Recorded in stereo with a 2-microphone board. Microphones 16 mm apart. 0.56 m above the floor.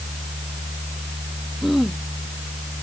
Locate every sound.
1.6 s throat clearing: 10° right (ahead or behind)